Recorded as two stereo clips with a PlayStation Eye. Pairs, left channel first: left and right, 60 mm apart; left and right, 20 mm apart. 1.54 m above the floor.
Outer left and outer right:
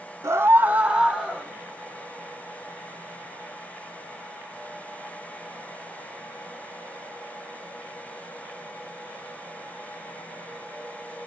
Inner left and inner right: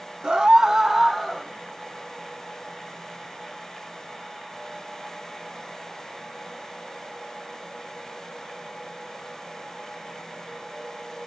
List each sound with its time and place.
0.2 s a scream: 55° right (ahead or behind), 0.7 m; by 1.5 s centre (ahead or behind), 1.4 m